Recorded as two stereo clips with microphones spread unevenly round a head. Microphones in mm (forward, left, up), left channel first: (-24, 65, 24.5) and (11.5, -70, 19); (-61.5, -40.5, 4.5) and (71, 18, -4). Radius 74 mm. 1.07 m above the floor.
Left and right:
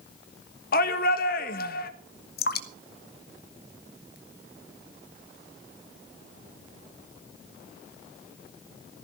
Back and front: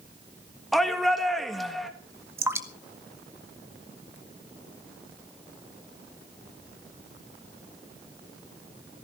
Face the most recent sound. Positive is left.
turn(degrees=95)